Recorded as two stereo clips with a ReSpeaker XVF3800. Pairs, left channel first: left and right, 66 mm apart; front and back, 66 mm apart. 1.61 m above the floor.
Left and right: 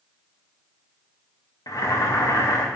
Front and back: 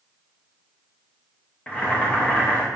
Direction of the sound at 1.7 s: 70° left.